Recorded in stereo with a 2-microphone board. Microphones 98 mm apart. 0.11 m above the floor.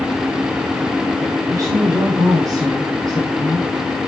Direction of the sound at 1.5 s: 40° right (ahead or behind).